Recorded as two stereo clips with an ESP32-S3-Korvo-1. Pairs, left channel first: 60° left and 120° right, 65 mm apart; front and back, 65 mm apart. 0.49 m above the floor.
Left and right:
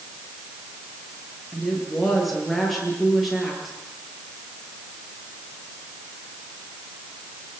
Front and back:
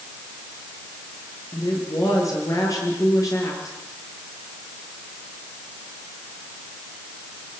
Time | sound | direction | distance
1.5 | a woman speaking | 30° right | 8.5 m